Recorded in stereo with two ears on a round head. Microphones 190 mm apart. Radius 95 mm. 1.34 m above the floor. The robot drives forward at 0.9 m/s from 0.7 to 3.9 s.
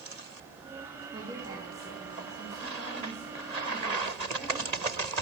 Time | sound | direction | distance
1.1 | a woman speaking | 25° right (ahead or behind) | 1.9 m